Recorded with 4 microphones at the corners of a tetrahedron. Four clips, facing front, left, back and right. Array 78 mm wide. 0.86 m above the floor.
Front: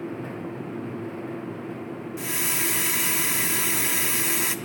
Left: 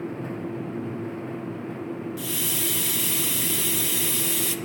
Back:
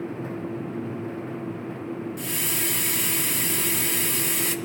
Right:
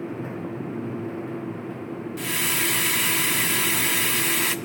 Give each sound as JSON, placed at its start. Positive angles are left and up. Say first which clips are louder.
{"t": 2.2, "sound": "a hiss", "louder": "right 4 dB, front 1 dB", "azimuth_deg": -70, "distance_m": 1.2}